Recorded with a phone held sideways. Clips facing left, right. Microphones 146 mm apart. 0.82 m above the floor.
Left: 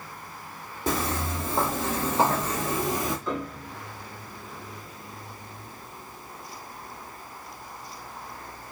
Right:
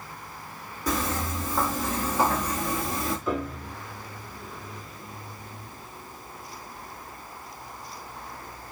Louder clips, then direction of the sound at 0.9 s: Even; 30° left (ahead or behind).